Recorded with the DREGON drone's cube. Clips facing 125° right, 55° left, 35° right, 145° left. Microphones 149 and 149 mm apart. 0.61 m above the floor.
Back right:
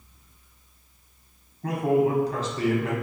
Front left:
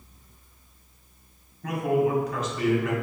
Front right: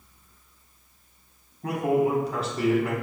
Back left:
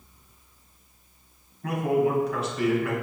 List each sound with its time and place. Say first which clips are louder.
1.6 s a man speaking: back right 2 dB, even; 80° right, 1.1 m